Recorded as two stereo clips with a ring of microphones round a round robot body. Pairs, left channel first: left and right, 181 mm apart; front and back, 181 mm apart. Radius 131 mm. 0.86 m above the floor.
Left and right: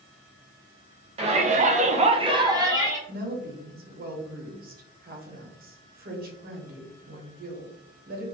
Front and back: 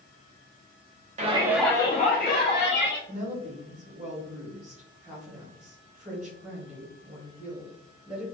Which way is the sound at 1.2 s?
140° right.